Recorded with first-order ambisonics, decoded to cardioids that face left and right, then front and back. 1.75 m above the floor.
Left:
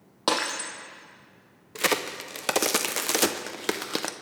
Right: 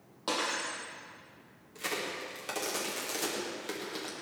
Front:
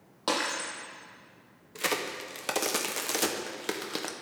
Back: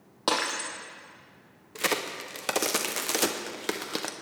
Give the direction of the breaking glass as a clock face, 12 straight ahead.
8 o'clock.